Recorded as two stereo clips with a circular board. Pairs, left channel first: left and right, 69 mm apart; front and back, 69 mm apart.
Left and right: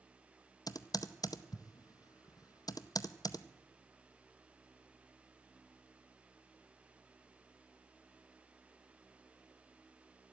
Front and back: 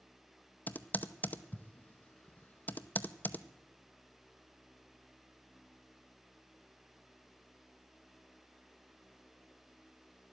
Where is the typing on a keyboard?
65° left, 0.6 m.